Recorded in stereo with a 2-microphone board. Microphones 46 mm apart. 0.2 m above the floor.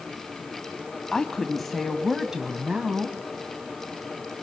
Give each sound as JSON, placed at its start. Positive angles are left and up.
{"t": 1.1, "sound": "a woman speaking", "side_deg": 15, "distance_m": 1.5}